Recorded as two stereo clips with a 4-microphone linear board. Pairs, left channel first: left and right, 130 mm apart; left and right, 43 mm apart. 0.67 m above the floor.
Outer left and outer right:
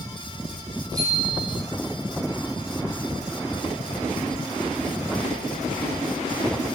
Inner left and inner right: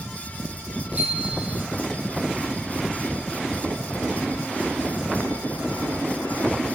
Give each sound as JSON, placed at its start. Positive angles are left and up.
{"t": 0.9, "sound": "a bicycle bell", "side_deg": -30, "distance_m": 8.0}